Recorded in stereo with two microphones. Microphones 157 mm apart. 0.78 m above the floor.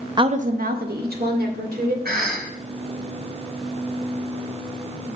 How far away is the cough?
About 4.5 m.